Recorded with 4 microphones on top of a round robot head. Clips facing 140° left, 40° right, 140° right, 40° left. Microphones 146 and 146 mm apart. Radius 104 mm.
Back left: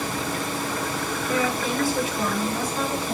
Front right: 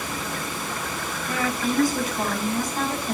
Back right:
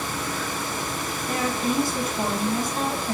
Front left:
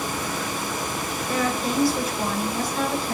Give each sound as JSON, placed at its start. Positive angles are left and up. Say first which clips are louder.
{"t": 1.3, "sound": "a woman speaking", "louder": "even, even", "azimuth_deg": -90, "distance_m": 8.5}